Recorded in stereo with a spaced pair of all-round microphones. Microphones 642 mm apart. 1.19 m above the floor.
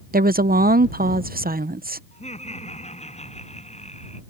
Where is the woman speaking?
15° right (ahead or behind).